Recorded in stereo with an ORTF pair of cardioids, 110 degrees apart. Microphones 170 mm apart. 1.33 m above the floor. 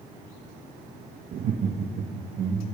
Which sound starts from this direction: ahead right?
Laughter, at 1.3 s.